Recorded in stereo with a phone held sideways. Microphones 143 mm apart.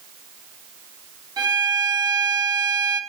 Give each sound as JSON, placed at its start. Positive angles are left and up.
{"t": 1.4, "sound": "a violin", "side_deg": -30, "distance_m": 1.0}